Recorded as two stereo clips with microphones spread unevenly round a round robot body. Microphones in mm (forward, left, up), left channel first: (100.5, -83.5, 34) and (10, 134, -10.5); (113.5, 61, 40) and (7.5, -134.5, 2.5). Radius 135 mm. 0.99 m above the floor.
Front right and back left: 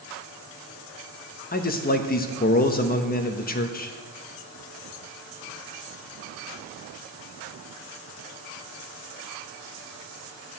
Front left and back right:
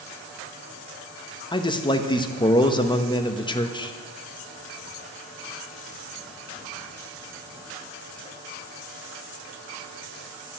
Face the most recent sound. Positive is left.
turn(degrees=-10)